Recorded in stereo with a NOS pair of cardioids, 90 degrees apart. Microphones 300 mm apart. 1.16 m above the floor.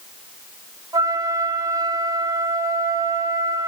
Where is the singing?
No singing in this recording.